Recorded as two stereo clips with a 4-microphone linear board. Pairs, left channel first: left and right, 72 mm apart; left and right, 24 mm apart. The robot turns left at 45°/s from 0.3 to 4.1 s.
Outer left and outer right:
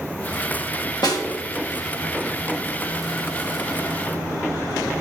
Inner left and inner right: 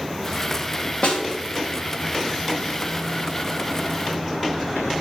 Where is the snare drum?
60° left (ahead or behind), 1.4 m; by 1.2 s 55° left (ahead or behind), 1.4 m.